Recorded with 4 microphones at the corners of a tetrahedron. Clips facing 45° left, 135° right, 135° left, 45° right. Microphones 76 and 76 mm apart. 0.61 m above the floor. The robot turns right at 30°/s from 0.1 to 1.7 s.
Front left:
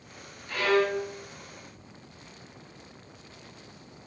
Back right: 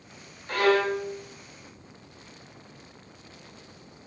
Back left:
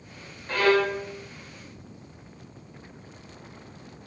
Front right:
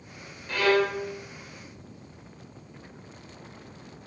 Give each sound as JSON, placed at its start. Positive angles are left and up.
{"t": 0.5, "sound": "a violin", "azimuth_deg": -175, "distance_m": 0.7}